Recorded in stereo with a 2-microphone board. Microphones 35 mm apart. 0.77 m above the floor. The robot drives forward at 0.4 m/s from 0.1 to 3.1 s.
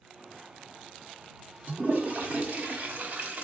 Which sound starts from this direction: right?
A toilet flushing, at 1.7 s.